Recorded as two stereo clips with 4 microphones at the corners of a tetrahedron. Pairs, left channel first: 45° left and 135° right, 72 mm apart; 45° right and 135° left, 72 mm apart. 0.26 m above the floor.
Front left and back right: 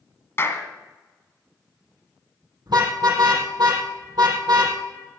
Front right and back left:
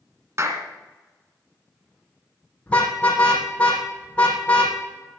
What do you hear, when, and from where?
0.4 s a clap: 95° left, 1.8 m
2.7 s a car horn: 120° right, 5 m